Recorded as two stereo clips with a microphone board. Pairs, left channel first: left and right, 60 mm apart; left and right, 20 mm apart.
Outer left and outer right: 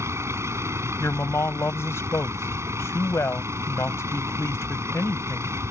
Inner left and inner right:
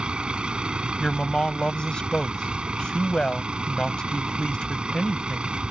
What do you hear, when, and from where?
0.0 s a vehicle: 60° right (ahead or behind)
1.0 s a woman speaking: 55° left (ahead or behind)